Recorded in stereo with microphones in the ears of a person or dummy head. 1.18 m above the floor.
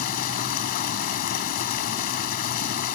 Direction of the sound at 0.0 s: 50° left (ahead or behind).